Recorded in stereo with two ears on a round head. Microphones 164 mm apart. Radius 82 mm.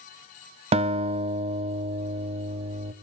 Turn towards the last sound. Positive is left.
turn(degrees=-35)  # may be behind; listen again after turning